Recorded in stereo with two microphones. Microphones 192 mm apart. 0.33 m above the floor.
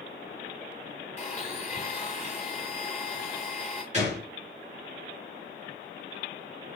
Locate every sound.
1.2 s a blender: 35° left (ahead or behind), 1.8 m
3.9 s a gunshot: 35° right (ahead or behind), 4 m